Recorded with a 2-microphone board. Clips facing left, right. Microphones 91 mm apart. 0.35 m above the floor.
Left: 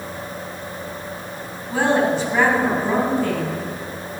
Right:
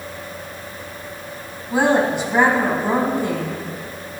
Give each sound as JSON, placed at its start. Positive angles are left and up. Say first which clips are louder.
{"t": 1.7, "sound": "a woman speaking", "louder": "right 1 dB", "side_deg": -15, "distance_m": 2.5}